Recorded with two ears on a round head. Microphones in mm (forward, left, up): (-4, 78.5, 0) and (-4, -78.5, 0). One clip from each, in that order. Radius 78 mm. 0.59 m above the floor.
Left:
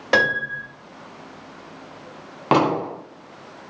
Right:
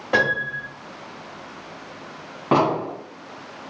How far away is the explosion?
About 1.0 m.